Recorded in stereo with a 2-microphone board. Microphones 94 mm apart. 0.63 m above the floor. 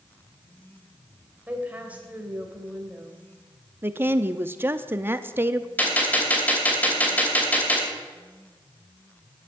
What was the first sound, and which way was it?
A woman speaking, 15° right (ahead or behind).